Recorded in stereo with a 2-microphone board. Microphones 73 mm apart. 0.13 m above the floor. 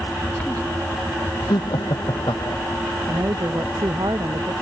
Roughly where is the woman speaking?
Right.